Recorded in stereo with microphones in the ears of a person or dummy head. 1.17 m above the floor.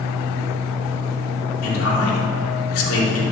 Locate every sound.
0.0 s a fan: 50° right (ahead or behind), 3.5 m
1.6 s a man speaking: 85° left, 2.5 m